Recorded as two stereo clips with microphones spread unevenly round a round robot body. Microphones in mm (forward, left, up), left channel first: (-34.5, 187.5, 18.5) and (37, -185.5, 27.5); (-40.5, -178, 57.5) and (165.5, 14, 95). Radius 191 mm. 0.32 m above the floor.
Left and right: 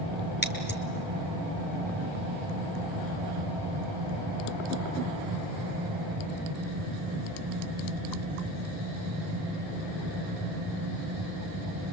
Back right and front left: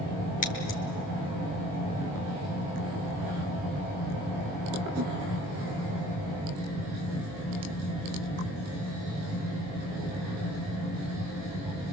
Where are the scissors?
165° left, 2.5 m.